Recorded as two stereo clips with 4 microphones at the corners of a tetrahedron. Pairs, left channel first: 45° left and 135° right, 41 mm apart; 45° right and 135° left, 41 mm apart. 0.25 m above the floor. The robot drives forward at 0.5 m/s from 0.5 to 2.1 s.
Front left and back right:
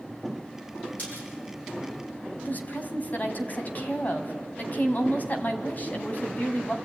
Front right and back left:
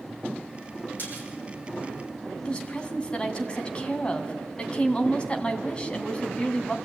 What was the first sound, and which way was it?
A splash, straight ahead.